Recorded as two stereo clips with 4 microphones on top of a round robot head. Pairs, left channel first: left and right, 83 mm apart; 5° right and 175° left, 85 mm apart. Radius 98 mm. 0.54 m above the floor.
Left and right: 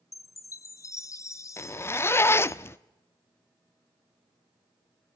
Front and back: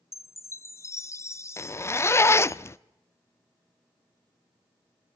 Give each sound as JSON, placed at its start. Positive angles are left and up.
{"t": 0.1, "sound": "a chime", "azimuth_deg": 45, "distance_m": 1.2}
{"t": 1.6, "sound": "a zipper", "azimuth_deg": 45, "distance_m": 0.5}